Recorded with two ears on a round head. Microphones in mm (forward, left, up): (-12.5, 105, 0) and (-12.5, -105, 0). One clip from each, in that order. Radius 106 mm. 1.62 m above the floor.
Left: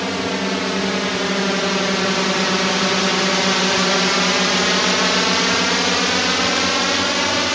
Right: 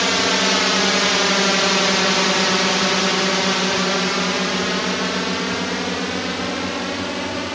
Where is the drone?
45° right (ahead or behind); by 7.5 s 45° left (ahead or behind).